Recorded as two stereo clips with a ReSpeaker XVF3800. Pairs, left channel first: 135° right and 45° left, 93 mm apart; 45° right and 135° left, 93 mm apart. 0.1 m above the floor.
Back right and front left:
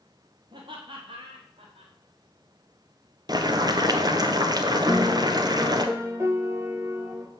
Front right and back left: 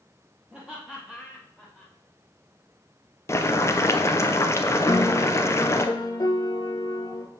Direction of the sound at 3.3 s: 10° left.